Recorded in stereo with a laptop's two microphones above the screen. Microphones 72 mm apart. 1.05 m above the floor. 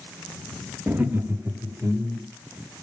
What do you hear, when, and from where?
0.9 s laughter: 25° right (ahead or behind), 1.5 m; by 2.3 s 35° right (ahead or behind), 3.5 m